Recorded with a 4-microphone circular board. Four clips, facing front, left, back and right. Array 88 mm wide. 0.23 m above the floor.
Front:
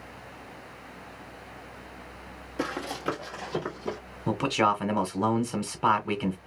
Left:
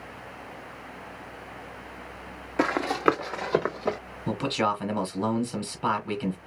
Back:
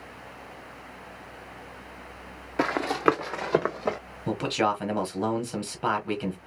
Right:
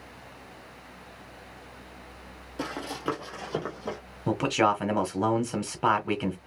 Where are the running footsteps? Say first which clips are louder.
Left 10 dB, back 8 dB; 130° left, 0.8 m; by 4.0 s 155° left, 1.4 m.